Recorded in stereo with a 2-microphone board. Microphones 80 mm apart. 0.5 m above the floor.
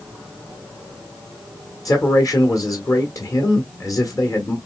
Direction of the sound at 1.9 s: 40° left (ahead or behind).